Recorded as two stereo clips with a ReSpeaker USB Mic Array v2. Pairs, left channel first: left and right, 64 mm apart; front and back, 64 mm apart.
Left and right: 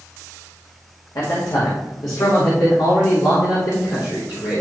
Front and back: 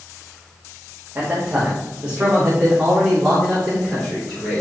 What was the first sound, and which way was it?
A man speaking, 120° left.